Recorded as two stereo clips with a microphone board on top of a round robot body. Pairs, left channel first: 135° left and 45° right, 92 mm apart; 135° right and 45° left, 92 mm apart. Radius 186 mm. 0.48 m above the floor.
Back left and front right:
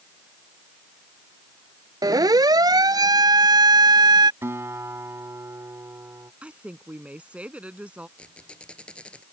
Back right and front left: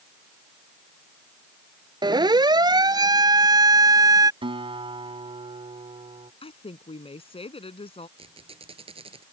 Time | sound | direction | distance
2.0 | a siren | 5° left | ?
4.4 | a guitar | 20° left | ?
6.4 | a woman speaking | 125° right | ?
8.2 | a squeak | 55° left | ?